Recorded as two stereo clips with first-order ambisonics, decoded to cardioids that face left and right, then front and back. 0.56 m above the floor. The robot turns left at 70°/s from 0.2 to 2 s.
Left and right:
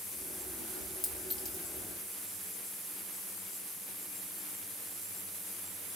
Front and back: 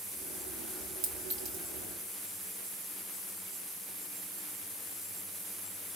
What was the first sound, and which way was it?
A clink, 170° left.